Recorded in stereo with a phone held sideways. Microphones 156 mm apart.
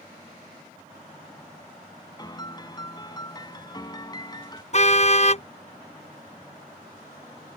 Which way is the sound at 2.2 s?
25° left (ahead or behind).